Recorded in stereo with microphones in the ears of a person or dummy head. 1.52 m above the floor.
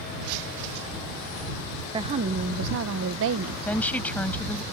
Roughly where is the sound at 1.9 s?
Right.